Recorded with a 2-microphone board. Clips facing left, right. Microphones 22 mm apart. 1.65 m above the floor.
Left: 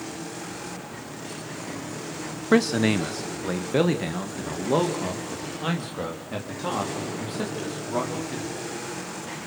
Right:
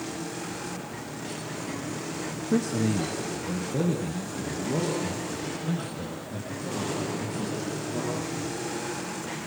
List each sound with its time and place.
2.5 s a man speaking: 75° left (ahead or behind), 0.9 m; by 8.7 s 85° left, 4.5 m